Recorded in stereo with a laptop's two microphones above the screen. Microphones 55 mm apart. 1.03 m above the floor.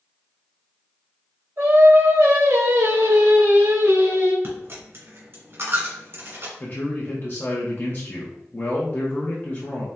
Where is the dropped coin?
50° right (ahead or behind), 1.7 m.